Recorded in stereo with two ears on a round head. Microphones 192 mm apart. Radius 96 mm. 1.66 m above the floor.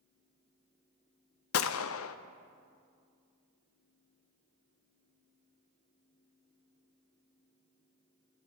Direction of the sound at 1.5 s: 70° left (ahead or behind).